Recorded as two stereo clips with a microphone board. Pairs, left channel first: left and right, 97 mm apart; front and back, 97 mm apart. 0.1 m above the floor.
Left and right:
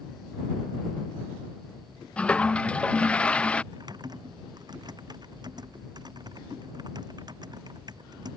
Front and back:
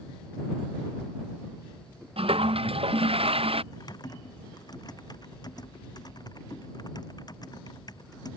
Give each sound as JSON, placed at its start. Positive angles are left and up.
{"t": 2.2, "sound": "a toilet flushing", "azimuth_deg": 170}
{"t": 3.7, "sound": "typing on a keyboard", "azimuth_deg": -45}